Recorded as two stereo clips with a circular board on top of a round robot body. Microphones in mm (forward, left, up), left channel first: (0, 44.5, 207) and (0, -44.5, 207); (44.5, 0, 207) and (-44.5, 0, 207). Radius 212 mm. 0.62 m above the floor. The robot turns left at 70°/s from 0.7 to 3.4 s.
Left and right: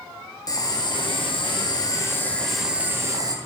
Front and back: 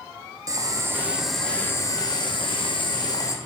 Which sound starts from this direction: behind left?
Boiling, at 0.5 s.